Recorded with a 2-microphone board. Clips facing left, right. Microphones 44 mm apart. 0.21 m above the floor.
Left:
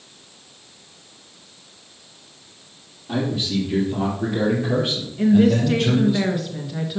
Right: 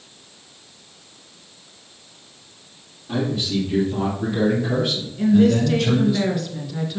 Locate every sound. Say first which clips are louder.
3.1 s a man speaking: even; 5° left (ahead or behind), 5 m; by 6.2 s 20° left (ahead or behind), 4 m
5.2 s a woman speaking: even; 10° left (ahead or behind), 2.5 m